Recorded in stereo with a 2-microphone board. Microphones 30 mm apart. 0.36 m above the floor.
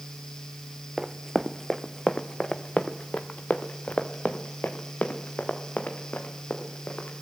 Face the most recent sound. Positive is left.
turn(degrees=70)  # may be behind; listen again after turning